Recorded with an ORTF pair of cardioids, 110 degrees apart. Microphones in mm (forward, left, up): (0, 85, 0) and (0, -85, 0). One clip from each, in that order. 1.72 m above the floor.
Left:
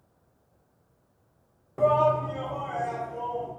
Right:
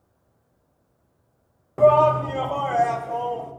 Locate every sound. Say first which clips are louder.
1.8 s a shout: right 6 dB; 25° right, 0.8 m; by 3.5 s 65° right, 1.5 m